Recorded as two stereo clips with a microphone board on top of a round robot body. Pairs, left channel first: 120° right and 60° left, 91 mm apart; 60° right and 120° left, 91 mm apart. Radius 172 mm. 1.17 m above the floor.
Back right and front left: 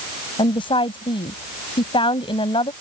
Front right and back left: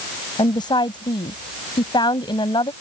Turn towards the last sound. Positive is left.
turn(degrees=-95)